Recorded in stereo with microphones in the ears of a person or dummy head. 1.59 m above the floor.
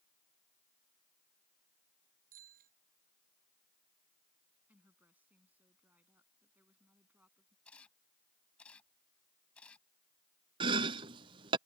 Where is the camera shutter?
10° left (ahead or behind).